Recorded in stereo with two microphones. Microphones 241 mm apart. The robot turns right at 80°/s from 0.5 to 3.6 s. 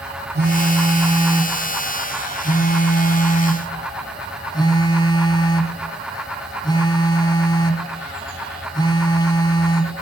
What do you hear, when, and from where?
0.3 s a phone buzzing: 95° right, 1.1 m; by 10.0 s 150° left, 1.1 m